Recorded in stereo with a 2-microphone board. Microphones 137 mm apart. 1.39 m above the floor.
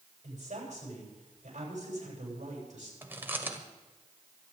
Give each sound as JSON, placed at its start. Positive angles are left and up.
{"t": 0.2, "sound": "a woman speaking", "side_deg": -55, "distance_m": 8.5}
{"t": 3.0, "sound": "chewing", "side_deg": -15, "distance_m": 1.7}